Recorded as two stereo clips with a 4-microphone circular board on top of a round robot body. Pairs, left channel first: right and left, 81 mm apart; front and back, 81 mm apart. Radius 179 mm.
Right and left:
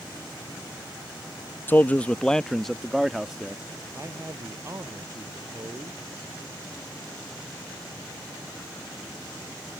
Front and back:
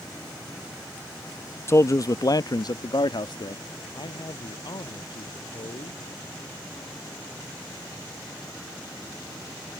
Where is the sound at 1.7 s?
35° right; by 3.6 s 10° left.